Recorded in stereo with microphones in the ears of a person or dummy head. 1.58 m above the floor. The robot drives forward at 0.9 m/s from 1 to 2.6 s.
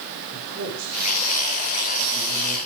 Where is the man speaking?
50° right (ahead or behind), 5.5 m; by 2.6 s 40° right (ahead or behind), 6.5 m.